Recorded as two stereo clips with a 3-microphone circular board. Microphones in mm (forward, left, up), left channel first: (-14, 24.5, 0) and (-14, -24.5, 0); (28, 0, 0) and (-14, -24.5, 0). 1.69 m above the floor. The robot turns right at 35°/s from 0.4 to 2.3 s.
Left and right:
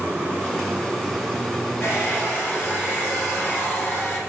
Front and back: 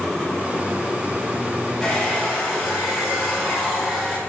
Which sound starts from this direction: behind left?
A hair dryer, at 1.8 s.